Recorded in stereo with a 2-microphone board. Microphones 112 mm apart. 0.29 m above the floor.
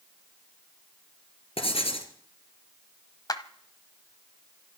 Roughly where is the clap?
Left.